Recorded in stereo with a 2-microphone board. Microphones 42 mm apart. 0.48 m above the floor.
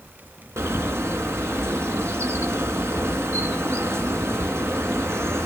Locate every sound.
0.6 s a bird: 75° right (ahead or behind), 3 m